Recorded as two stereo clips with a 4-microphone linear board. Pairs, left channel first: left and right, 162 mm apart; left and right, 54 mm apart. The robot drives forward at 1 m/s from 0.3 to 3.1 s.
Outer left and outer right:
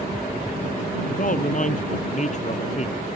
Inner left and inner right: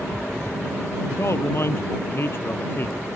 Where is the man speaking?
55° left (ahead or behind); by 3.1 s 45° left (ahead or behind).